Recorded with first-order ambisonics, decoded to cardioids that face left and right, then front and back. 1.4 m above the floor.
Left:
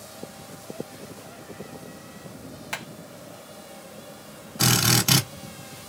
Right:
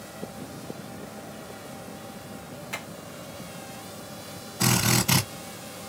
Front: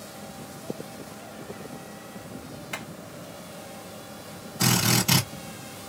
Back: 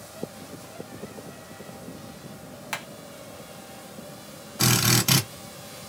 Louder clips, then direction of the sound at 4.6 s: Left 3 dB, back 1 dB; 125° left.